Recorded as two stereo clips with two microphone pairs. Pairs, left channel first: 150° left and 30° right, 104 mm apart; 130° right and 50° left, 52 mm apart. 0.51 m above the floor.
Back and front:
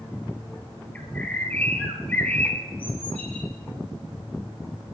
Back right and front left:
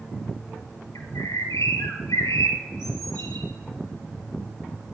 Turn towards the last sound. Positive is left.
turn(degrees=-135)